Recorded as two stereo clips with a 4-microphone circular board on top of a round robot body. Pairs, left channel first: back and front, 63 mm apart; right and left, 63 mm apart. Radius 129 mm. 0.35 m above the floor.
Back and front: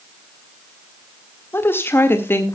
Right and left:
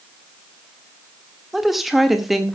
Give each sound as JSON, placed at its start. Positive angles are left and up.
{"t": 1.5, "sound": "a woman speaking", "azimuth_deg": 175, "distance_m": 1.6}